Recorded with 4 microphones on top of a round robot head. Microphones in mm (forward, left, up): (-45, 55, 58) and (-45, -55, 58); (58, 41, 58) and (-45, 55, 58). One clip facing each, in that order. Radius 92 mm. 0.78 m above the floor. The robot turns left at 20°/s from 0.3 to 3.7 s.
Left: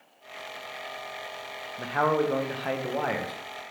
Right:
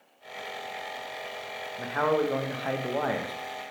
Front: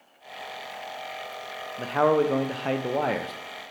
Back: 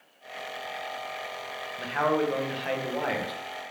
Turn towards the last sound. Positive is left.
turn(degrees=-25)